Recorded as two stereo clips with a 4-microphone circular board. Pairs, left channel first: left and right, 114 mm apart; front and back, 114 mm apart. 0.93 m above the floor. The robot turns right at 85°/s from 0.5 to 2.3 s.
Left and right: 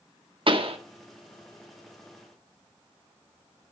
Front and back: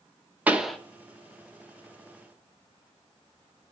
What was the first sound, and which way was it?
A pop, 105° right.